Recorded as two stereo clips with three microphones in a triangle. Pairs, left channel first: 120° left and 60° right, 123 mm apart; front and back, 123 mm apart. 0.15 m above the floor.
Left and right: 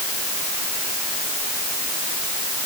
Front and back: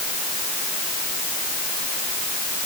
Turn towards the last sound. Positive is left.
No sound to turn to.